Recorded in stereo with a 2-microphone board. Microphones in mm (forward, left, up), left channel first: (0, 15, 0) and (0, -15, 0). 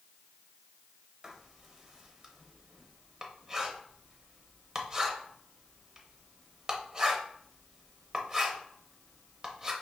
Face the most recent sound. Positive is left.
turn(degrees=-20)  # may be behind; listen again after turning